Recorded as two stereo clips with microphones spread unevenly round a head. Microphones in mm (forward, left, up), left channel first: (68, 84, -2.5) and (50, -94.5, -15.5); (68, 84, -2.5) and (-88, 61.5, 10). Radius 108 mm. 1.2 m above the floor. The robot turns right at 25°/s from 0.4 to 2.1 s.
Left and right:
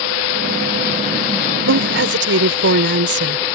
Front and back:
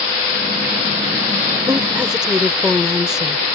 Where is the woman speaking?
95° right; by 3.5 s 85° right.